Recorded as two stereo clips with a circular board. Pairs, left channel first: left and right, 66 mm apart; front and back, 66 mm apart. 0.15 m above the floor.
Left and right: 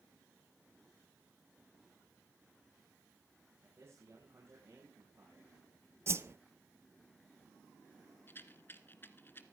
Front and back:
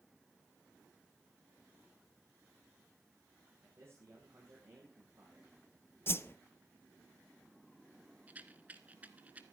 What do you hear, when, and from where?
3.6 s a man speaking: 135° right, 9 m; by 5.5 s 130° right, 10.5 m
6.1 s a whoosh: 45° right, 0.5 m
8.3 s a rattle: 125° left, 1.2 m